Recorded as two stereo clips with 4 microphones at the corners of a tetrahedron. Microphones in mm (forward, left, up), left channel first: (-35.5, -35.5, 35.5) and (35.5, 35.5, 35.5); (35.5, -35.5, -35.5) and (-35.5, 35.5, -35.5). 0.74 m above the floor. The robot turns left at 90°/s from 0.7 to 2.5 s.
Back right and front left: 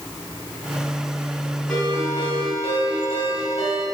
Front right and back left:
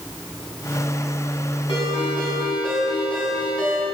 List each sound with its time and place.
1.7 s a ringtone: 50° right, 4 m; by 3.8 s 125° right, 4 m